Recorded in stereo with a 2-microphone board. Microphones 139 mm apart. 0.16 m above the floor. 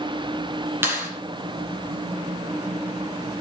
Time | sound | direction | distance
0.8 | a clap | 15° right (ahead or behind) | 5 m